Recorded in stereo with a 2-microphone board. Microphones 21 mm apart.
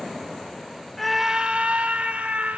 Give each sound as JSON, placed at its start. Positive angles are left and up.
{"t": 1.0, "sound": "a scream", "side_deg": 10, "distance_m": 0.7}